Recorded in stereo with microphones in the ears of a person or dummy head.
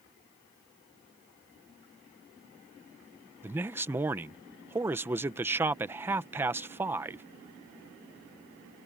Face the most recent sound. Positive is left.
turn(degrees=-10)  # may be behind; listen again after turning